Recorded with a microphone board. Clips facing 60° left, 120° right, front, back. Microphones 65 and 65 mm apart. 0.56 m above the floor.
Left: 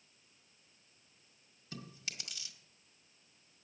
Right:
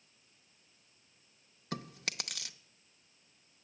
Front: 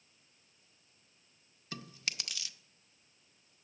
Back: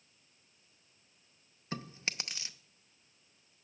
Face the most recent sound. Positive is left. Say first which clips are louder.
# right 7 dB, back 3 dB
turn(degrees=-120)